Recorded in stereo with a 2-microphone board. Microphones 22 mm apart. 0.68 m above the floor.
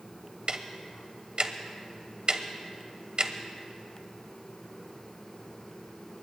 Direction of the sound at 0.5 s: 45° right (ahead or behind).